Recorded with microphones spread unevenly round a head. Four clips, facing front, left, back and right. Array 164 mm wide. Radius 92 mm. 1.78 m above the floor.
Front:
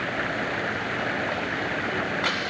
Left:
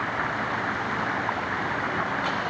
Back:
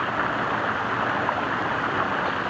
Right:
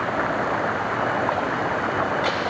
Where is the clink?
I don't hear a clink.